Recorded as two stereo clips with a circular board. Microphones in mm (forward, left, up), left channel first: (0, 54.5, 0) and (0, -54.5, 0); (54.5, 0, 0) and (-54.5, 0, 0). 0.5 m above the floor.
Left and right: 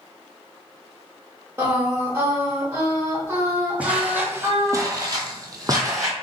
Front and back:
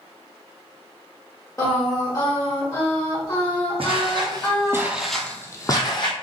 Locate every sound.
1.6 s singing: 40° right, 1.2 m
3.8 s footsteps: 165° right, 1.0 m; by 6.1 s 35° right, 0.9 m